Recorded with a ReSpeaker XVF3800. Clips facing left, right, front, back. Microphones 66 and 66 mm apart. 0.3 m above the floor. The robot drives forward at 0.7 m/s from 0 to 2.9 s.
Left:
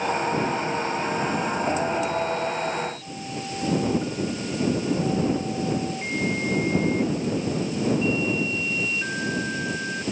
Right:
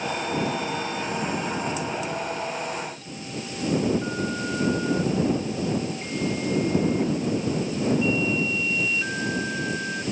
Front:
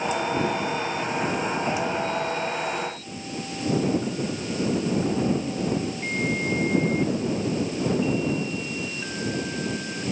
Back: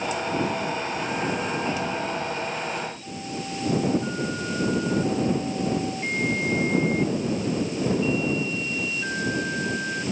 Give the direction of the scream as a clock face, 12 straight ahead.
No scream in this recording.